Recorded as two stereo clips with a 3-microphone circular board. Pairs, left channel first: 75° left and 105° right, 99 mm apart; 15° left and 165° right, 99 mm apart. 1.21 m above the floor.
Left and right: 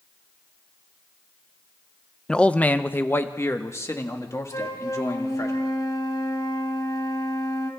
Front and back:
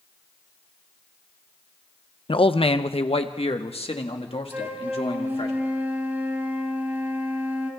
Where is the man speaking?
10° right, 0.8 m; by 5.5 s 20° left, 3 m.